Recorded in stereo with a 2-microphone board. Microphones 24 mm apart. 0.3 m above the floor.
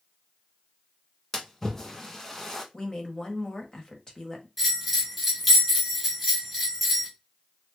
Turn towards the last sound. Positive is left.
turn(degrees=5)  # may be behind; listen again after turning